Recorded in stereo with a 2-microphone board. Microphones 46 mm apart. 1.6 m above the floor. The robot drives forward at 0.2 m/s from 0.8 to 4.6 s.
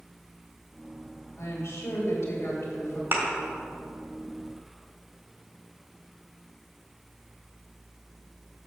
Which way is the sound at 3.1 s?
50° right (ahead or behind).